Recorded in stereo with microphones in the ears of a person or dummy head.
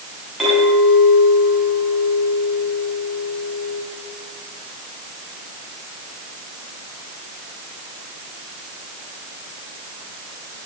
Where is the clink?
5° left (ahead or behind), 10 m.